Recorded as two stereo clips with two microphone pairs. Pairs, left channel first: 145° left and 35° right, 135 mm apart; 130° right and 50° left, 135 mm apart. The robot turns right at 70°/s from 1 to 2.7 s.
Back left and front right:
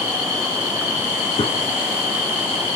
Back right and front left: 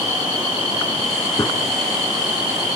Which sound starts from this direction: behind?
A gunshot, at 1.4 s.